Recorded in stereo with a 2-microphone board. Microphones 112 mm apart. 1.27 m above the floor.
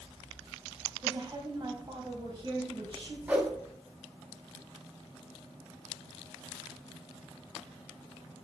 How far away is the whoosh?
About 0.8 m.